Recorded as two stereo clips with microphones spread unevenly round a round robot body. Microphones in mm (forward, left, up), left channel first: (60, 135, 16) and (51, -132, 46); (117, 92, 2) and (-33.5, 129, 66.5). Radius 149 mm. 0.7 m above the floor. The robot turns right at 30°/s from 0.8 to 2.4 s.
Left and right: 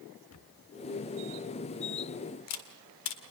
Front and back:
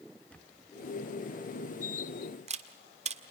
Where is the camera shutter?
65° left, 2.0 m; by 3.2 s 110° left, 2.0 m.